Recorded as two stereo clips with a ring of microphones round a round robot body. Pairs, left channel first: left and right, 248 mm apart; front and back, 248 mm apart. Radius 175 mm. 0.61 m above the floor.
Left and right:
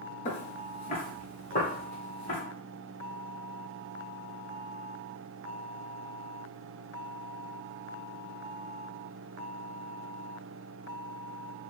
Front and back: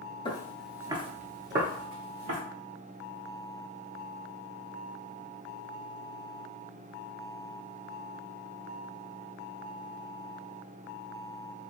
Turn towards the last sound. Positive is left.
turn(degrees=165)